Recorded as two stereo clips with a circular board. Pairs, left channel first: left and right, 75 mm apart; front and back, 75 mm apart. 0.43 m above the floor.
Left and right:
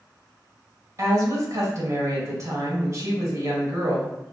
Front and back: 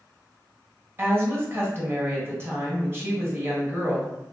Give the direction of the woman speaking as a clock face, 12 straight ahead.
4 o'clock.